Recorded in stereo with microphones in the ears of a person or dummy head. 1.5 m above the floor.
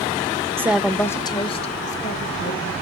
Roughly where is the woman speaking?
Centre.